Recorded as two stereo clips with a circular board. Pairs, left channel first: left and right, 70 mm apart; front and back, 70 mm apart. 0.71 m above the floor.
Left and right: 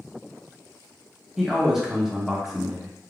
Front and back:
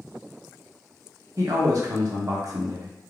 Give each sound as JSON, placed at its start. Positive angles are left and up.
{"t": 1.4, "sound": "a man speaking", "azimuth_deg": -175, "distance_m": 0.8}